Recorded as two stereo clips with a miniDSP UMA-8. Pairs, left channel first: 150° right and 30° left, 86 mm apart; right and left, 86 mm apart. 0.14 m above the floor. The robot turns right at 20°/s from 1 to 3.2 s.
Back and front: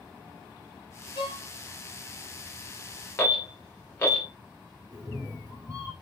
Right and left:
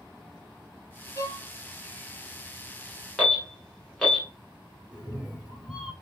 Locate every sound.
1.1 s a violin: 140° right, 0.8 m; by 1.5 s 135° right, 0.8 m
3.2 s an alarm: 170° right, 1.0 m
4.9 s a cat meowing: 10° left, 0.8 m